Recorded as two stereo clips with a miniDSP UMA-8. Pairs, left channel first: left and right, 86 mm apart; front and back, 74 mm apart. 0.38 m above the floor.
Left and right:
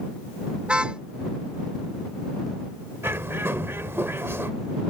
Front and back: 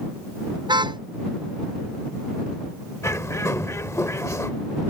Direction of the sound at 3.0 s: 35° right.